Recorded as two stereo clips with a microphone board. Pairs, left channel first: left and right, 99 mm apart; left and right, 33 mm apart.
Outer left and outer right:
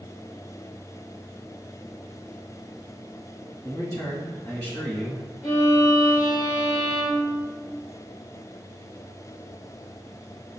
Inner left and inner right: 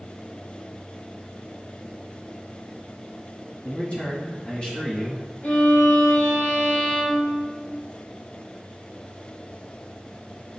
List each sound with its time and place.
3.6 s a man speaking: 45° left (ahead or behind), 1.9 m; by 5.3 s 30° left (ahead or behind), 1.1 m
5.4 s a violin: 55° left (ahead or behind), 1.5 m